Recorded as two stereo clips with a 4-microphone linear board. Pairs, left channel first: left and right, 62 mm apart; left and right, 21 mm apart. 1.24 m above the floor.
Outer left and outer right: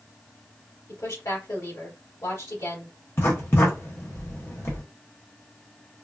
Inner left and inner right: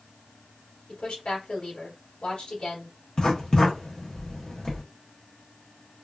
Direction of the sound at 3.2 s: 45° left (ahead or behind).